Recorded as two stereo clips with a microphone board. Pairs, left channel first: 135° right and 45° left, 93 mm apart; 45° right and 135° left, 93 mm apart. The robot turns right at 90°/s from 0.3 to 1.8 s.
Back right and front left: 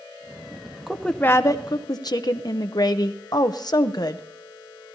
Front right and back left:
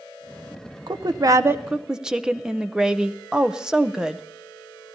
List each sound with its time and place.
0.9 s a woman speaking: 130° left, 0.6 m; by 4.2 s 145° right, 0.6 m